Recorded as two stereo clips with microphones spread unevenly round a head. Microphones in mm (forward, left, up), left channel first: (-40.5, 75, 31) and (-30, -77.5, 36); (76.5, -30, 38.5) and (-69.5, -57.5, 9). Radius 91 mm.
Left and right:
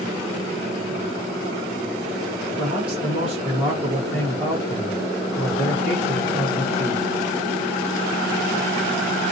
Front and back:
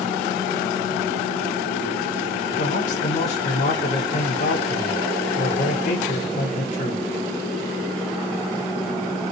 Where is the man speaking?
Straight ahead, 1.9 m.